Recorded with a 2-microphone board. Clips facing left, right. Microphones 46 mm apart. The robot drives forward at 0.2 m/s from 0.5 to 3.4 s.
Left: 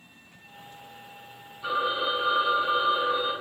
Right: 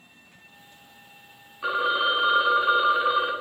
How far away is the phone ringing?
About 0.6 m.